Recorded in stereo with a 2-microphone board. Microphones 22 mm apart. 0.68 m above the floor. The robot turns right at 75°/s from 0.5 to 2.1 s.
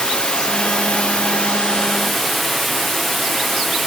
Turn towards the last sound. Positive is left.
turn(degrees=175)